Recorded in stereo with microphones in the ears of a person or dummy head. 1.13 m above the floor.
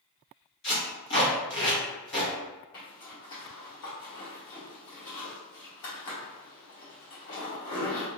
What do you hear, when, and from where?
0.6 s tape being pulled: 60° left (ahead or behind), 1.0 m
2.7 s a zipper: 65° left (ahead or behind), 1.4 m